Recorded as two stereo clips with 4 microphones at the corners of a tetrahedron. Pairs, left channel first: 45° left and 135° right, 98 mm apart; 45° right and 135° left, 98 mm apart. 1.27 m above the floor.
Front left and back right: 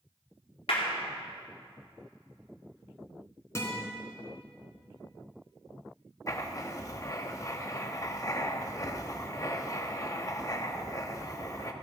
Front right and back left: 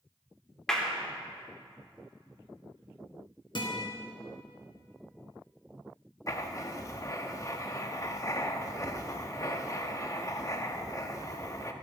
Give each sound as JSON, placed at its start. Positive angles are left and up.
{"t": 0.7, "sound": "a clap", "azimuth_deg": 40, "distance_m": 2.5}
{"t": 3.5, "sound": "a guitar", "azimuth_deg": -15, "distance_m": 3.5}
{"t": 6.3, "sound": "writing", "azimuth_deg": 0, "distance_m": 0.9}